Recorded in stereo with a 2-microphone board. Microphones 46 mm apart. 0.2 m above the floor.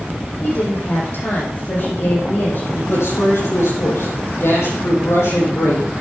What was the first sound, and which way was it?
A woman speaking, 50° left (ahead or behind).